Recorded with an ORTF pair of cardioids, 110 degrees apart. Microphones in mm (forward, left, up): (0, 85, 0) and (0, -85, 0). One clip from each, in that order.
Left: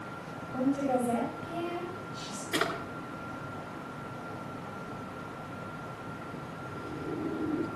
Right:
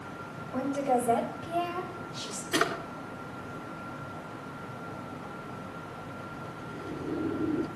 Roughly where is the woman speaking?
Right.